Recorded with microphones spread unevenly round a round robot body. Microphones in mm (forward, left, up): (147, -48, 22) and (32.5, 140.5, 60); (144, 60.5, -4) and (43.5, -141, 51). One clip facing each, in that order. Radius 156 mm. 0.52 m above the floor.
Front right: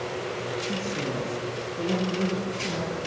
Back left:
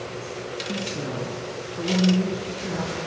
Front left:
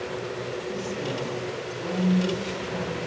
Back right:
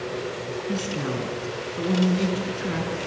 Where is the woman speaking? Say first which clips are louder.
Back left 2 dB, back right 5 dB; 150° right, 6 m.